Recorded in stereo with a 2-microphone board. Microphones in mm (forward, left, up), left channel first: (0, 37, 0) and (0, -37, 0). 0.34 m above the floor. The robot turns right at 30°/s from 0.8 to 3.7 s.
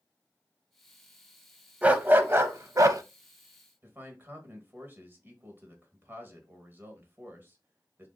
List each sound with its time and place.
1.8 s a dog barking: 160° right, 0.6 m; by 3.0 s 125° right, 0.6 m
3.8 s a man speaking: 30° right (ahead or behind), 1.3 m